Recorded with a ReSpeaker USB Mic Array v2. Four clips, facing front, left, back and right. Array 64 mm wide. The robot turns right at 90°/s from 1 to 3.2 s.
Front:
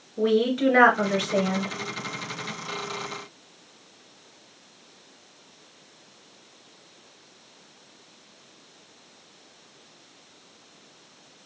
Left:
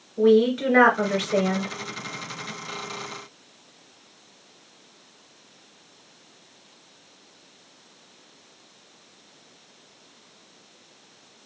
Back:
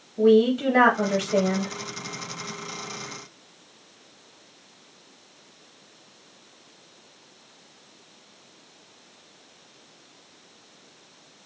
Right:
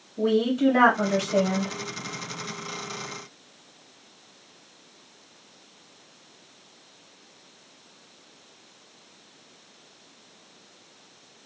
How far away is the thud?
No thud in this recording.